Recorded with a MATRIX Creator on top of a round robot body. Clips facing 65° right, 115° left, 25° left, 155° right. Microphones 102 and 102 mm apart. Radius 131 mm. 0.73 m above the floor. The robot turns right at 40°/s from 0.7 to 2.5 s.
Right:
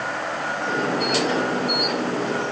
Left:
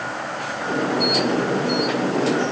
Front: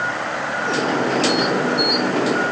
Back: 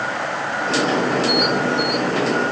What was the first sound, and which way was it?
Only background noise.